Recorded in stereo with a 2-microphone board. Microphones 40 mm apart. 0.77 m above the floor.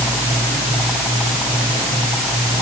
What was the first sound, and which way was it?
Only background noise.